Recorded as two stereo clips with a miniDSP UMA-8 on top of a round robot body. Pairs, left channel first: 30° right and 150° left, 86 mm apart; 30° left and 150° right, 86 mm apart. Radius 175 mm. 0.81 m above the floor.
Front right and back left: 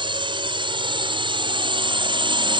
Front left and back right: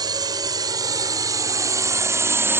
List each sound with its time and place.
0.0 s a drone: 170° left; by 2.6 s 150° left